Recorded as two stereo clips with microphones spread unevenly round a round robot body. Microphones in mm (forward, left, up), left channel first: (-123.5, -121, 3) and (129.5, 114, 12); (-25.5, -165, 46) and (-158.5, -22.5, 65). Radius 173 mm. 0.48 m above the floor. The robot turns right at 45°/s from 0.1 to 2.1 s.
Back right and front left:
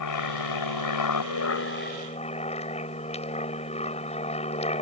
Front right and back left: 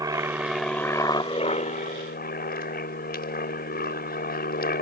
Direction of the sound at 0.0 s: 160° right.